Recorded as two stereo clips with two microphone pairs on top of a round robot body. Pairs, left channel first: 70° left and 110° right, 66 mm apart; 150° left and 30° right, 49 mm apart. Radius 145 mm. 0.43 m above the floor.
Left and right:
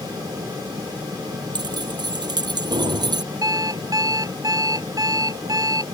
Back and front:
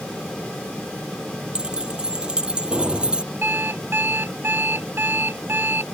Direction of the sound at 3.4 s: 75° right.